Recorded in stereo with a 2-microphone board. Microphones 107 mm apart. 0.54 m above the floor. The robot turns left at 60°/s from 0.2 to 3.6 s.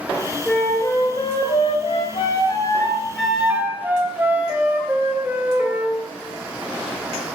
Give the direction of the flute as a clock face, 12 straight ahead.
6 o'clock.